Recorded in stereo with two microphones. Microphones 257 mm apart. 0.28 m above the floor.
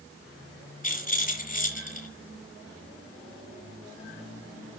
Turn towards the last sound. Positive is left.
turn(degrees=30)  # may be behind; listen again after turning